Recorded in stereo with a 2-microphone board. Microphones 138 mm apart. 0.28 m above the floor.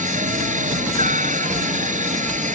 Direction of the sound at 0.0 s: 75° right (ahead or behind).